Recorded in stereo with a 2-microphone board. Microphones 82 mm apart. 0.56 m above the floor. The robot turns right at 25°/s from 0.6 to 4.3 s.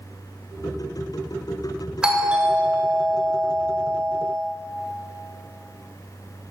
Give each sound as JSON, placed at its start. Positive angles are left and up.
{"t": 2.0, "sound": "a doorbell", "azimuth_deg": -165, "distance_m": 1.9}